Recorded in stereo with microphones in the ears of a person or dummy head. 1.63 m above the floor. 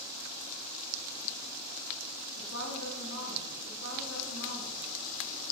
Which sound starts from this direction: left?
A woman speaking, at 2.4 s.